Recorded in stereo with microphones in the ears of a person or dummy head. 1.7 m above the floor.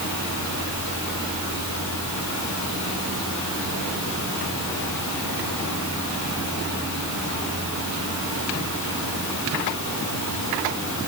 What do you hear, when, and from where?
0.0 s a fan: 65° left (ahead or behind), 2.0 m